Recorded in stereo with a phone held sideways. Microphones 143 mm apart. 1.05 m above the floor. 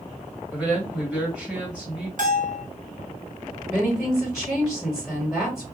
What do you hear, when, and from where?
0.5 s a woman speaking: 10° right (ahead or behind), 1.6 m
2.2 s a bell: 65° right (ahead or behind), 1.2 m
3.7 s a woman speaking: 5° right (ahead or behind), 1.4 m